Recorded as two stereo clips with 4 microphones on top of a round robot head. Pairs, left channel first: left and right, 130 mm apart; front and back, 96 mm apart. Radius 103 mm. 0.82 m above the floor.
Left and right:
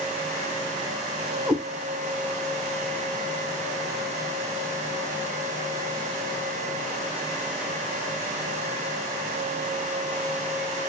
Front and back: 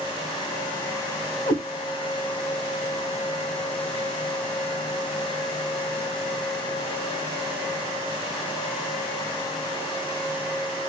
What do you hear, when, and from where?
1.5 s a cat meowing: 10° right, 0.7 m